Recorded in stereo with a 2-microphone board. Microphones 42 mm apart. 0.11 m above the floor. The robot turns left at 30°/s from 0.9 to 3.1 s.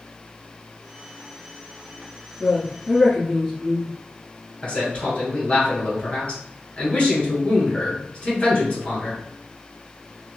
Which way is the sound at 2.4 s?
15° left (ahead or behind).